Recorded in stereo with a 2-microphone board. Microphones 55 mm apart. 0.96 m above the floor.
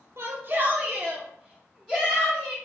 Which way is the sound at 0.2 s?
50° right (ahead or behind).